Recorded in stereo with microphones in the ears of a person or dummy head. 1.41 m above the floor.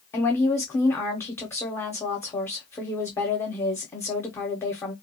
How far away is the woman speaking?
About 0.6 m.